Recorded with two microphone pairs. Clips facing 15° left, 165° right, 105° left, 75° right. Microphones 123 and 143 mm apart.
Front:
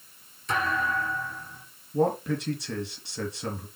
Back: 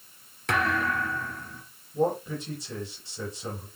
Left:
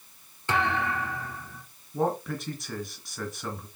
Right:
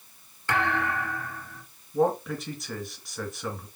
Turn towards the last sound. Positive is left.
turn(degrees=15)